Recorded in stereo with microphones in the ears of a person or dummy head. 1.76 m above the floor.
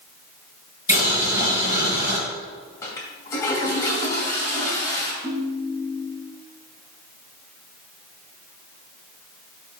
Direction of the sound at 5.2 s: Centre (ahead or behind).